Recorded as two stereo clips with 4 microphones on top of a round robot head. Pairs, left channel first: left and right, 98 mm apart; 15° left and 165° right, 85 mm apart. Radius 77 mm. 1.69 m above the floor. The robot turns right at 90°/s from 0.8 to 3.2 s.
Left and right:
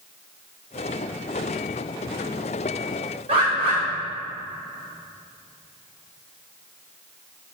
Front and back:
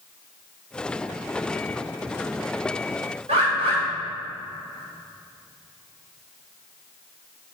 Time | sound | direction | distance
3.3 | a bird | 135° right | 5.5 m